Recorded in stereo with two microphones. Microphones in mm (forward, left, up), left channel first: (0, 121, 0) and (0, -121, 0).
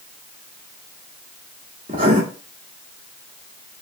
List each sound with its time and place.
1.9 s writing: 35° right (ahead or behind), 1.0 m